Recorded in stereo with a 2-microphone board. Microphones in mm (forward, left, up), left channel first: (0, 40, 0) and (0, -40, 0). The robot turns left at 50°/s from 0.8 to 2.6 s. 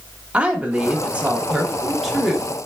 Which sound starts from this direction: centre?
A woman speaking, at 0.3 s.